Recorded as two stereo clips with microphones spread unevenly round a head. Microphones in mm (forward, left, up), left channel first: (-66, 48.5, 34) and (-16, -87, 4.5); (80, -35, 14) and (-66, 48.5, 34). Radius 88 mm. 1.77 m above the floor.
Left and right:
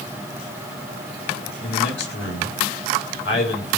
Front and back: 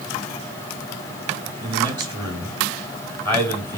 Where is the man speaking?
90° left, 4 m.